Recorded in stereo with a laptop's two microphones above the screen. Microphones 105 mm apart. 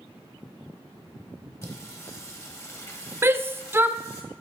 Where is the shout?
20° right (ahead or behind), 0.7 m.